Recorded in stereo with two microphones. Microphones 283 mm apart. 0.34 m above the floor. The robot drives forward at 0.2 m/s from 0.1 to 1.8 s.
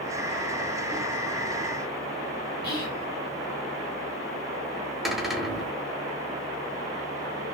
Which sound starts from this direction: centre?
A cupboard door, at 5.0 s.